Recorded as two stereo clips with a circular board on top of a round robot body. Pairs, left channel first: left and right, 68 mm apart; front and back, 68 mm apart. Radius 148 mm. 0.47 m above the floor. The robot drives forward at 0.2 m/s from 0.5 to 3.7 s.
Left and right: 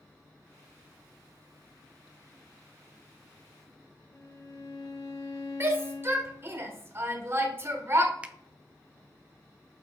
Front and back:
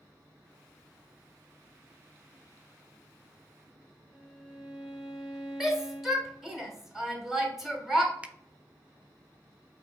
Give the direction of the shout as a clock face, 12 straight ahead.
3 o'clock.